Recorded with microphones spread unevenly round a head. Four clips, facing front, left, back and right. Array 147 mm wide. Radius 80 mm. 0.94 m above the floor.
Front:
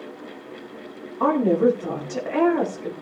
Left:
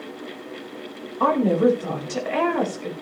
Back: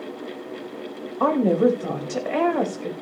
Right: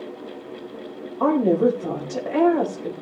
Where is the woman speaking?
155° right, 4.5 m.